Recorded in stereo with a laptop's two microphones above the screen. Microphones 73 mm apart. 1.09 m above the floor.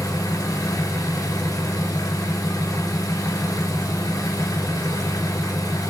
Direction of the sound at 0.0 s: 55° left (ahead or behind).